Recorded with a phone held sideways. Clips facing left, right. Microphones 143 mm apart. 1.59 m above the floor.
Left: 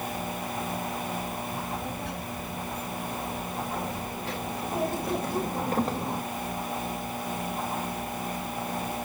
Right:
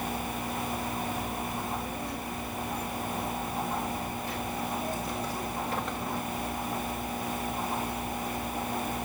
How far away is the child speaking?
About 5 m.